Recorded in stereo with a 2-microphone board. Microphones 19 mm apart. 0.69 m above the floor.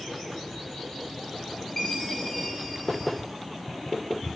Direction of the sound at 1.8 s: 25° left (ahead or behind).